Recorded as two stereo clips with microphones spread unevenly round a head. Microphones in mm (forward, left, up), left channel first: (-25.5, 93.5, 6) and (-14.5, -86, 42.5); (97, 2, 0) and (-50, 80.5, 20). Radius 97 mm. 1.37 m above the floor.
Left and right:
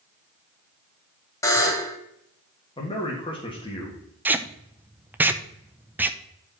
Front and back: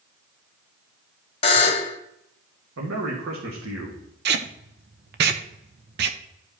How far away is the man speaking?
About 1.9 m.